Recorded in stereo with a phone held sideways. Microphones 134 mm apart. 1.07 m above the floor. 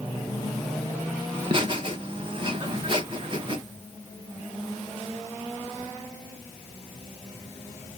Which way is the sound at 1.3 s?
35° right (ahead or behind).